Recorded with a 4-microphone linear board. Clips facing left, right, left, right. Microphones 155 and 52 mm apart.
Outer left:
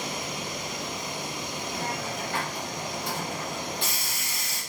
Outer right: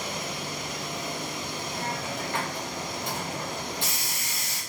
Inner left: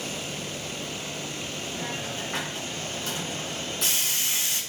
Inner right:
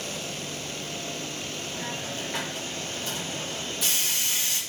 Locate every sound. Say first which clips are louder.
1.7 s a hiss: even, inner left 1 dB; 60° left (ahead or behind), 2.5 m